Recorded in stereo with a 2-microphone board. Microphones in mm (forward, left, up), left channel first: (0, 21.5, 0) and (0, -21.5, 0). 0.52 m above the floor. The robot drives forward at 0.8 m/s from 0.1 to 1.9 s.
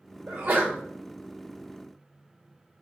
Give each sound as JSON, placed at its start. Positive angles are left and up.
{"t": 0.3, "sound": "a sneeze", "side_deg": -55, "distance_m": 2.0}